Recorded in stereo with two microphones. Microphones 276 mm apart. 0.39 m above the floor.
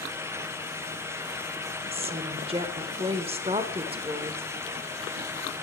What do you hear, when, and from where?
1.9 s a woman speaking: 20° right (ahead or behind), 0.9 m